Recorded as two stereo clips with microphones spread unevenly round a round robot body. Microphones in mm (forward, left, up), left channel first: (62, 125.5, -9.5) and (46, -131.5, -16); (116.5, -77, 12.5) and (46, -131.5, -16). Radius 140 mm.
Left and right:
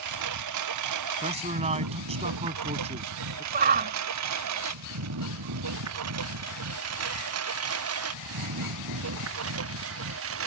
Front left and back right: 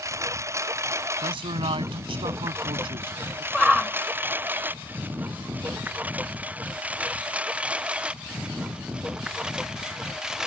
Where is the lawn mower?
85° right; by 10.5 s 60° right.